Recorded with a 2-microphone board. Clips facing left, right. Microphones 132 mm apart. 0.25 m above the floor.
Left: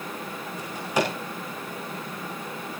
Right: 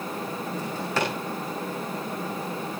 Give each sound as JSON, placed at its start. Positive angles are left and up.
{"t": 0.6, "sound": "a drawer", "side_deg": 15, "distance_m": 7.5}